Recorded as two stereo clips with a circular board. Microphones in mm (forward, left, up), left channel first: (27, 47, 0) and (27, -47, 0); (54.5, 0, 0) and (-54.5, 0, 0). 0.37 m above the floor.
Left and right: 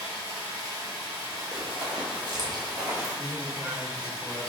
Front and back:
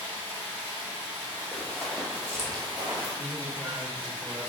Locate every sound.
0.0 s running water: 120° right, 1.8 m
1.5 s running footsteps: 70° right, 0.8 m; by 3.1 s 145° right, 1.0 m
3.2 s a man speaking: 135° right, 1.1 m